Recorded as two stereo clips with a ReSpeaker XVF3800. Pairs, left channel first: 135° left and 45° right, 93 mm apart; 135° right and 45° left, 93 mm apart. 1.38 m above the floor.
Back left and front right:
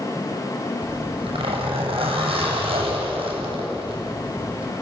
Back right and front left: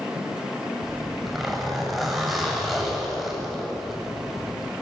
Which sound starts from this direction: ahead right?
A zipper, at 0.8 s.